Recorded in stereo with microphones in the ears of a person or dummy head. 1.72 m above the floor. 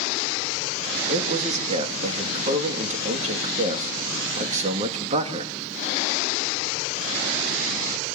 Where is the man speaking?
45° right (ahead or behind), 2.5 m.